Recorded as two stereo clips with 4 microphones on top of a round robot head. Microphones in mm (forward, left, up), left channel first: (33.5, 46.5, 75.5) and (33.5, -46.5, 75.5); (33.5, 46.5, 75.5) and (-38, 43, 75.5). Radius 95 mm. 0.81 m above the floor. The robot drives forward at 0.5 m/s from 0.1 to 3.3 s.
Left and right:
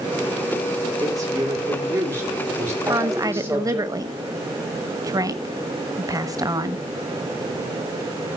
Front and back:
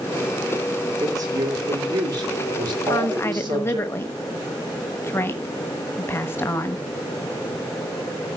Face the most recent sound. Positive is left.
turn(degrees=-50)